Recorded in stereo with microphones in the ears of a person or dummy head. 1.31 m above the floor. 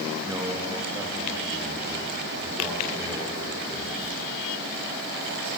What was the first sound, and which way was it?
A man speaking, 15° right (ahead or behind).